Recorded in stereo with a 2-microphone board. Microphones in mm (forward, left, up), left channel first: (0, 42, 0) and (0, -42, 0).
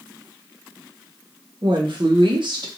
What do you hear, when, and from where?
1.6 s a woman speaking: 60° right (ahead or behind), 0.9 m